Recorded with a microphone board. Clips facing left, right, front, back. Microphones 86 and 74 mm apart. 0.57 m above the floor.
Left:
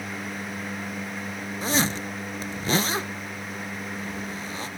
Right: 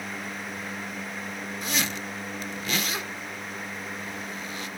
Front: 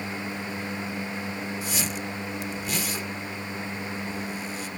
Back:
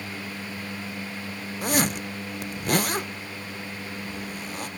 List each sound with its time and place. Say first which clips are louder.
1.6 s a zipper: left 7 dB, back 6 dB; 150° left, 0.6 m